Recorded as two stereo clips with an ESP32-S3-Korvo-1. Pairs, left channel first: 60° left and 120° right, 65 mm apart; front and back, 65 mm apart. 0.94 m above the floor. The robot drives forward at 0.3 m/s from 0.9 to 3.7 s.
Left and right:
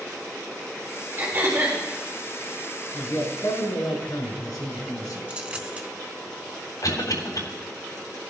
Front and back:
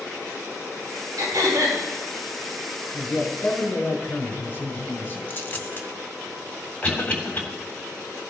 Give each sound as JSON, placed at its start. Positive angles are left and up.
{"t": 1.2, "sound": "throat clearing", "azimuth_deg": -175, "distance_m": 5.5}
{"t": 2.9, "sound": "a man speaking", "azimuth_deg": 55, "distance_m": 5.0}
{"t": 5.3, "sound": "a dropped coin", "azimuth_deg": -55, "distance_m": 1.3}
{"t": 6.8, "sound": "a cough", "azimuth_deg": 65, "distance_m": 3.5}